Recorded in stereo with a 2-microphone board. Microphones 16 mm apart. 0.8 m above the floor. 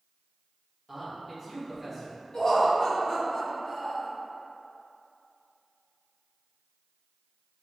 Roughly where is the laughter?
Left.